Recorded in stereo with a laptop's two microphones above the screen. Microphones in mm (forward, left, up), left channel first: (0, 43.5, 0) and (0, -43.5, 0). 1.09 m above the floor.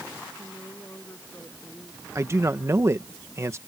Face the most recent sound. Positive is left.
turn(degrees=-30)  # may be behind; listen again after turning